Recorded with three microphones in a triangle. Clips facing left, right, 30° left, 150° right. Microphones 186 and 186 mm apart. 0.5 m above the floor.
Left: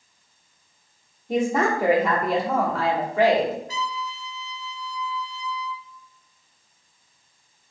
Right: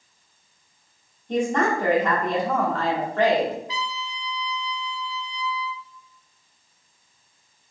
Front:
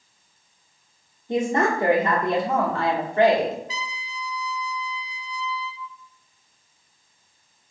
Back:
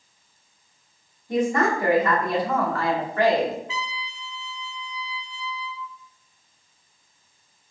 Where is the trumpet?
65° left, 0.5 m.